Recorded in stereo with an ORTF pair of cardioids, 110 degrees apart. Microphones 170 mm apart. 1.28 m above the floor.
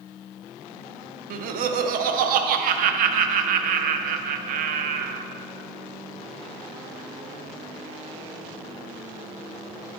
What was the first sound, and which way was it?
Laughter, 65° right.